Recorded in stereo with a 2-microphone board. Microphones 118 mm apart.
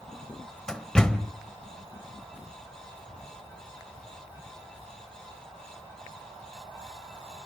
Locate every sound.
0.7 s a door slam: 5° left (ahead or behind), 1.1 m